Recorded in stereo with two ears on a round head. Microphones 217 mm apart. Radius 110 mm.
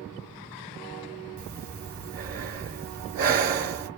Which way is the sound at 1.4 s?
40° right (ahead or behind).